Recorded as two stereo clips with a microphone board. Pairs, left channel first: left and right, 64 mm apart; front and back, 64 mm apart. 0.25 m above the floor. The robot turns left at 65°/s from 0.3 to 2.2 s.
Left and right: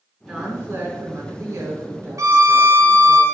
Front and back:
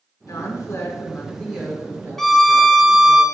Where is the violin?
85° right, 1.2 m.